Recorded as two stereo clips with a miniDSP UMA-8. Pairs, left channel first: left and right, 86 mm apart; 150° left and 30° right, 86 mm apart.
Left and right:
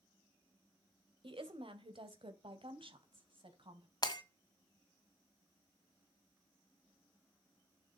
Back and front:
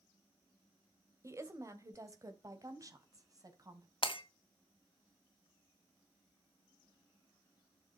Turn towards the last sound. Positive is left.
turn(degrees=130)